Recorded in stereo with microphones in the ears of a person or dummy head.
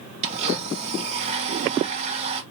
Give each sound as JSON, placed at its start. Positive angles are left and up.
{"t": 0.2, "sound": "a blender", "side_deg": -35, "distance_m": 1.4}